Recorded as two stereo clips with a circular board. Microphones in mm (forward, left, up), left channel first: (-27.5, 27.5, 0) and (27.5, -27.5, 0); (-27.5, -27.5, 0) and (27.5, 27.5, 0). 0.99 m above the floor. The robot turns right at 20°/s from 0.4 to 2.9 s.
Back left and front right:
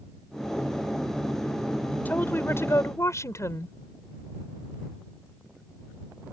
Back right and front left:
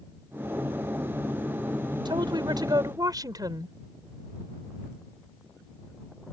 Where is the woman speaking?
65° left; by 3.8 s 80° left.